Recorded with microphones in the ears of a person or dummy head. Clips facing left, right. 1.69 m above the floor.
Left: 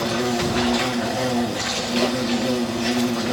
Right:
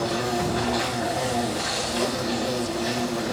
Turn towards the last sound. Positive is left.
turn(degrees=40)  # may be behind; listen again after turning